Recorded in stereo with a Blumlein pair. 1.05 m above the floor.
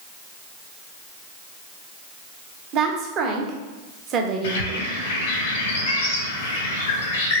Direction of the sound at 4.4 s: 55° left.